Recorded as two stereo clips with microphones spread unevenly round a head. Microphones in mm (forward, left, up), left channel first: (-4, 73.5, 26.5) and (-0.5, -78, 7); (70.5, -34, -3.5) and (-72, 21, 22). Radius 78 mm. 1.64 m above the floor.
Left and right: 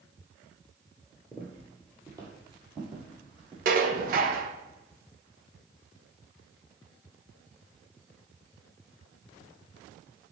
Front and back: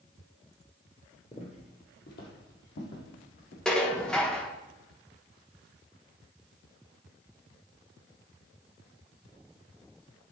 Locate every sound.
1.3 s footsteps: 5° left, 1.7 m; by 3.5 s 25° right, 4 m
3.6 s dishes clattering: 115° right, 0.9 m